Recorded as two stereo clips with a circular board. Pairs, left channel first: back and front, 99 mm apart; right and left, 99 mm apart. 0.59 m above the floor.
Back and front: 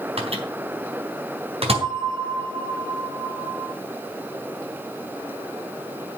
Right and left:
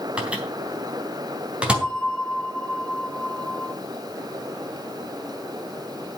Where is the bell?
10° right, 1.2 m.